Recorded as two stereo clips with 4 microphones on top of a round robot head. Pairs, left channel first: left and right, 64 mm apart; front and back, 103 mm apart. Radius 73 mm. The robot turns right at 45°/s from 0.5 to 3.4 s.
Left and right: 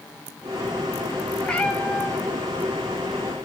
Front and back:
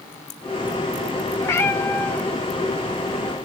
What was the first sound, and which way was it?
A cat meowing, 20° left.